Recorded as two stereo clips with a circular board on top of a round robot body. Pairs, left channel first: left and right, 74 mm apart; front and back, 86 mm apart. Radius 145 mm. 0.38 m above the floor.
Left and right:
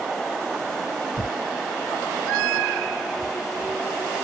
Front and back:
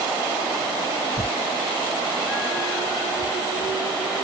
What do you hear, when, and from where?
1.2 s tearing paper: 65° left, 0.6 m